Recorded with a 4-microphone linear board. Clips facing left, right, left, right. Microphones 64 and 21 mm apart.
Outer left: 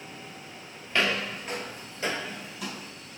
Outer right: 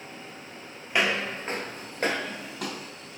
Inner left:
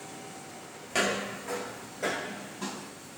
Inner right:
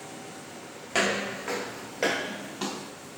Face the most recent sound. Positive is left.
turn(degrees=-60)  # may be behind; listen again after turning